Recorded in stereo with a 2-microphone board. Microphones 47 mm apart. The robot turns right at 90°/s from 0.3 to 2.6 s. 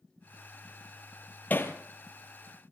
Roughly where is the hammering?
Left.